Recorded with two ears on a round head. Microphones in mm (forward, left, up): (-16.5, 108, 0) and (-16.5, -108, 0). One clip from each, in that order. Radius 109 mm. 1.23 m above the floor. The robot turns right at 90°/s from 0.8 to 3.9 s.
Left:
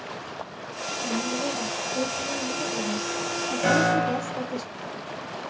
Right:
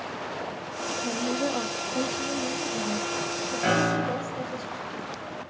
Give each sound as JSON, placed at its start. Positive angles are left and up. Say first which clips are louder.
{"t": 1.0, "sound": "a woman speaking", "louder": "left 1 dB", "azimuth_deg": -135, "distance_m": 0.5}
{"t": 3.6, "sound": "a piano", "louder": "left 3 dB", "side_deg": 5, "distance_m": 1.2}